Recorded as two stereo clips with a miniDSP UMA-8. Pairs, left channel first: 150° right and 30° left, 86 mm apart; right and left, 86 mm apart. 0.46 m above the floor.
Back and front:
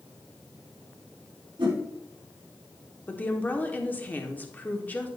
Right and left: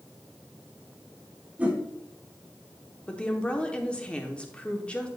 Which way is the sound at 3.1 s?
140° right.